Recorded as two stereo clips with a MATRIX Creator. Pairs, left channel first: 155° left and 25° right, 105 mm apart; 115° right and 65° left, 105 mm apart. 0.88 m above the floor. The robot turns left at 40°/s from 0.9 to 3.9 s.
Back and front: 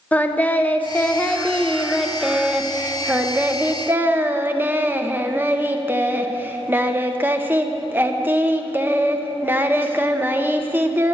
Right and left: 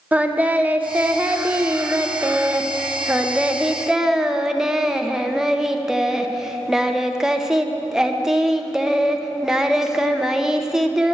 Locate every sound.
0.1 s singing: 115° left, 0.5 m; by 11.1 s 5° right, 0.5 m